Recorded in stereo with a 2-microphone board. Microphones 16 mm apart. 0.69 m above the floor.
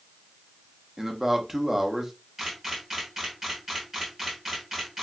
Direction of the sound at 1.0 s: 25° right (ahead or behind).